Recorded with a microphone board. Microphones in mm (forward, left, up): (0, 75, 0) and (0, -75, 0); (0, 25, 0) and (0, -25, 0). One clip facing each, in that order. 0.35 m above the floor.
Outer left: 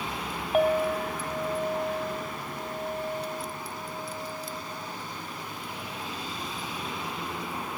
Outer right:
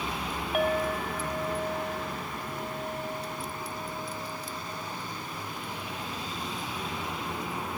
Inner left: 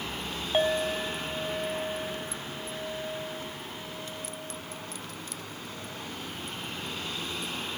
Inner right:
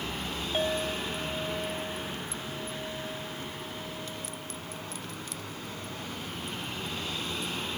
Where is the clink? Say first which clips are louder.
Outer left 4 dB, inner left 4 dB; 30° left (ahead or behind), 1.6 m.